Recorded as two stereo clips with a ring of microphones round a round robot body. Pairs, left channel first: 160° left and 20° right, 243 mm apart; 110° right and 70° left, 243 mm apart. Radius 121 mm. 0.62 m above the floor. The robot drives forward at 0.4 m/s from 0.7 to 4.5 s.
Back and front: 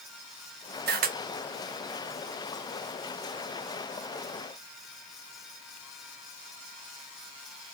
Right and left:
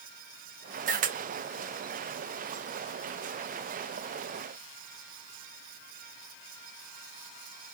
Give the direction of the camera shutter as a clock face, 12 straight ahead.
11 o'clock.